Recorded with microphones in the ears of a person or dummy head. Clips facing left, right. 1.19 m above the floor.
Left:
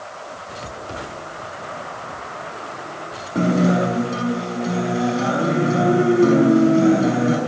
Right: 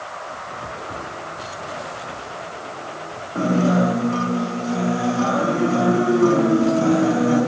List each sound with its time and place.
3.4 s a guitar: 20° left (ahead or behind), 6 m